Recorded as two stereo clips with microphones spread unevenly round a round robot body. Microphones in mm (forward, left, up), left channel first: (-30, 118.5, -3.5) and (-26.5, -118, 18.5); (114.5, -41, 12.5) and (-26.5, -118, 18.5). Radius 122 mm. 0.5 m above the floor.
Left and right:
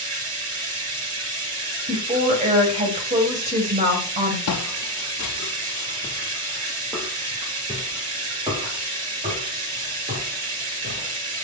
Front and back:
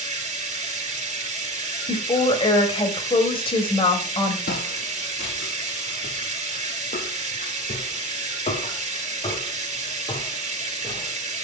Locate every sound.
0.0 s running water: 105° right, 3.5 m
1.9 s a woman speaking: 25° right, 2.5 m
4.5 s footsteps: 70° left, 1.3 m; by 11.1 s 30° right, 4 m